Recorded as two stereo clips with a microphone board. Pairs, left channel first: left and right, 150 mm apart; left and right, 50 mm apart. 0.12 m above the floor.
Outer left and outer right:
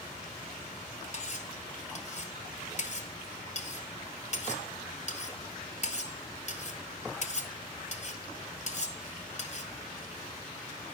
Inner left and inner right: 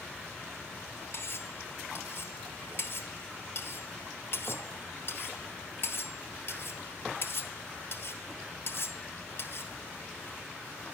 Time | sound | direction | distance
1.1 | cutlery clinking | 50° left (ahead or behind) | 1.4 m